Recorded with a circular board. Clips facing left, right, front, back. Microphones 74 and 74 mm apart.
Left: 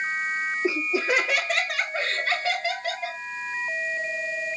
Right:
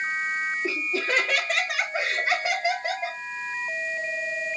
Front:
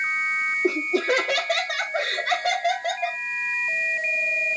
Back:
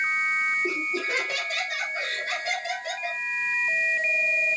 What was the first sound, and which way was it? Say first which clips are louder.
Laughter: left 3 dB, front 7 dB; 20° left.